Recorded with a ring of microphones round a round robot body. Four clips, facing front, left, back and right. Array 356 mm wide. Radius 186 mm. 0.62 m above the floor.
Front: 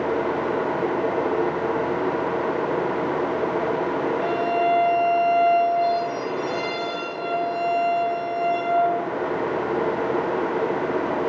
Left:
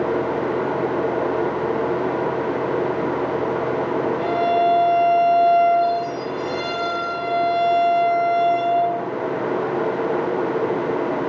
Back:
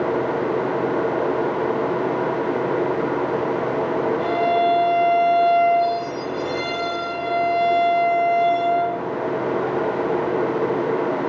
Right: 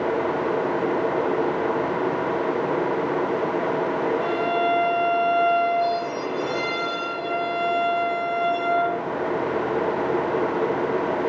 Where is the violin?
135° left, 2 m.